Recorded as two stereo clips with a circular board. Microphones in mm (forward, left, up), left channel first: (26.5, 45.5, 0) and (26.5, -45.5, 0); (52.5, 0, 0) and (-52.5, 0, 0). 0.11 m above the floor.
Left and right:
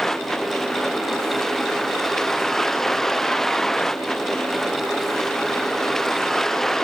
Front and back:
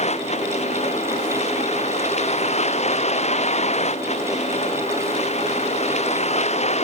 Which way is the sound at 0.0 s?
5° left.